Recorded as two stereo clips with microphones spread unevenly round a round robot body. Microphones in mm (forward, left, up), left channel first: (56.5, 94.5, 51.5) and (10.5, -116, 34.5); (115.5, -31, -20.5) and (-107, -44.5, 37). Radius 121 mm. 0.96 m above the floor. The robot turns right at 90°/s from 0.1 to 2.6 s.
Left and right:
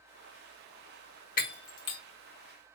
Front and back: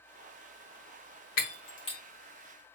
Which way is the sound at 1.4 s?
30° left.